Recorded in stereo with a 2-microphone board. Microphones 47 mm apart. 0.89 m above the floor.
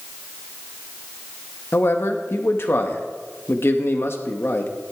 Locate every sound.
1.7 s a man speaking: 60° left (ahead or behind), 1.1 m